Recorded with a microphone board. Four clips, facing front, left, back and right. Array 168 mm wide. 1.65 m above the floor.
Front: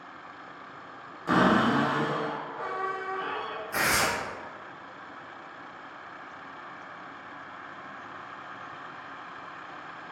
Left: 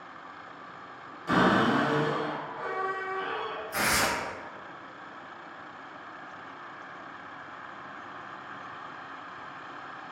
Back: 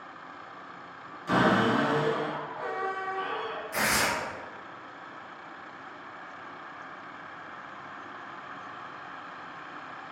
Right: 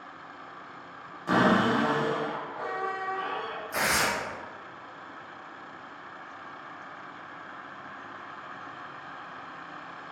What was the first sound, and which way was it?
A cupboard door, 35° right.